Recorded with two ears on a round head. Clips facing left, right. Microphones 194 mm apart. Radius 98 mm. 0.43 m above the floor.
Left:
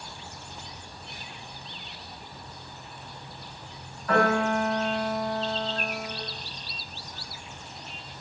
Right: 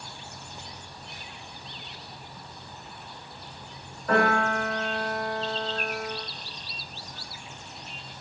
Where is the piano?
30° right (ahead or behind), 1.6 m.